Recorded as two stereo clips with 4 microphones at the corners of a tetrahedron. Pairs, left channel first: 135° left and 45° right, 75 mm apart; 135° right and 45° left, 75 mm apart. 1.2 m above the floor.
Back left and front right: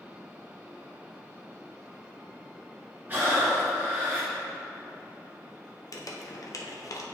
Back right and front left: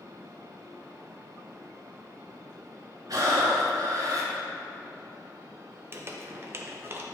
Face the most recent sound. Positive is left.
turn(degrees=95)